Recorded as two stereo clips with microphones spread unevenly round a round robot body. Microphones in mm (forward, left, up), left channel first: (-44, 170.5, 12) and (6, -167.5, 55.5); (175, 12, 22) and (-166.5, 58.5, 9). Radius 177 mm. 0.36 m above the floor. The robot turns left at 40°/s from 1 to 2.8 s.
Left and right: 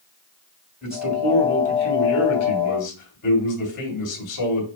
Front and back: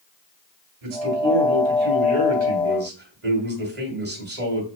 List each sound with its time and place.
0.8 s a man speaking: 175° right, 2.5 m; by 4.7 s 115° left, 2.5 m